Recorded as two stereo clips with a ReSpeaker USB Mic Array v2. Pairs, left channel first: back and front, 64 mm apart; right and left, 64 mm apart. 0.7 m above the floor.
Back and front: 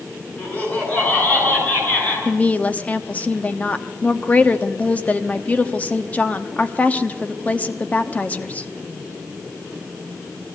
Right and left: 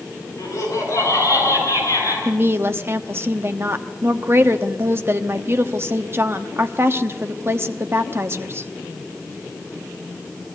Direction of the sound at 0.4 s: 125° right.